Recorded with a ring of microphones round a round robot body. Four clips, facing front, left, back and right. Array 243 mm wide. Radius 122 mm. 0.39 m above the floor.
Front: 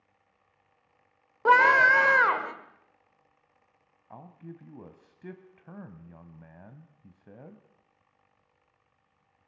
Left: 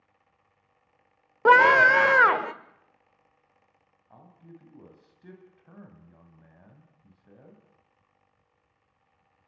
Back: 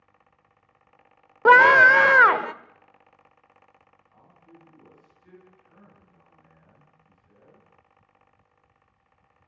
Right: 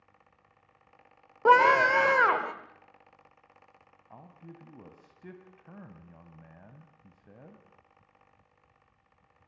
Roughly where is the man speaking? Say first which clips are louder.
Right 1 dB, front 9 dB; ahead.